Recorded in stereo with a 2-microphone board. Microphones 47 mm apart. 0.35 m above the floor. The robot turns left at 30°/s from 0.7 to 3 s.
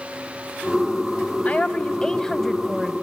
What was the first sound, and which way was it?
A woman speaking, 40° left.